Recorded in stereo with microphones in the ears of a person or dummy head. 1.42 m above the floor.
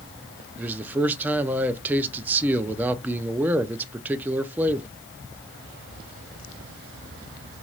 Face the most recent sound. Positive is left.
turn(degrees=-10)  # may be behind; listen again after turning